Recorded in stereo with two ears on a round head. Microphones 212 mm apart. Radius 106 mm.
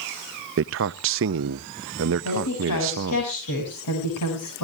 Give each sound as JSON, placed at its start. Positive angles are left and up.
{"t": 0.6, "sound": "a man speaking", "side_deg": -55, "distance_m": 0.5}
{"t": 2.2, "sound": "a woman speaking", "side_deg": 80, "distance_m": 7.0}